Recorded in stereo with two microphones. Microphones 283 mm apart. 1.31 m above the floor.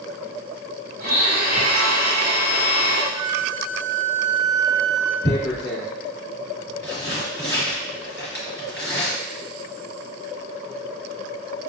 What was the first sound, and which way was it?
A blender, 35° right (ahead or behind).